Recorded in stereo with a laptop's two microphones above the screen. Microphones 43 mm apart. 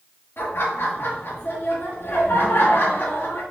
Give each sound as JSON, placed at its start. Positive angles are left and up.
{"t": 0.4, "sound": "laughter", "side_deg": 55, "distance_m": 1.4}